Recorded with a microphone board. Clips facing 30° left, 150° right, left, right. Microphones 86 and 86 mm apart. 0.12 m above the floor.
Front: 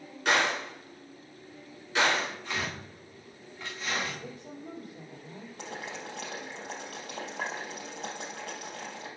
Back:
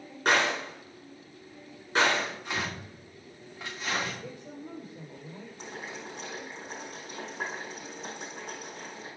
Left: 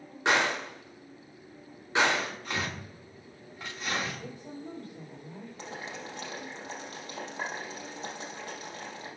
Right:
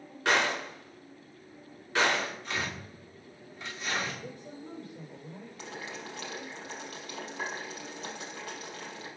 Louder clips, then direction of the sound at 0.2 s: Back 1 dB, left 1 dB; 155° left.